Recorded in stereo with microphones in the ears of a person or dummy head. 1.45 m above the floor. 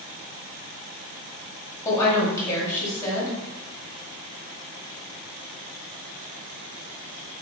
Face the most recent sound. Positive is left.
turn(degrees=20)  # may be behind; listen again after turning